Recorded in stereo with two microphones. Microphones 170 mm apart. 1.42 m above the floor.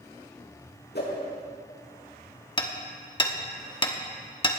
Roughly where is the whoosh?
Left.